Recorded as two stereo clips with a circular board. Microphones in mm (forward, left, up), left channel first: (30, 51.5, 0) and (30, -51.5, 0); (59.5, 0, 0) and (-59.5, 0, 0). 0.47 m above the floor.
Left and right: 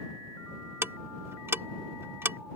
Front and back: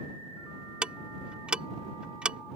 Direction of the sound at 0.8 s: 110° right.